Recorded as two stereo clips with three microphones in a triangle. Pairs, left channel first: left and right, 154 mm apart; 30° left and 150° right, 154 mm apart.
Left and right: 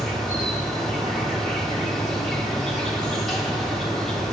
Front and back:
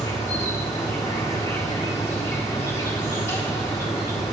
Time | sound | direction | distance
0.0 | an insect | 10° left | 1.2 m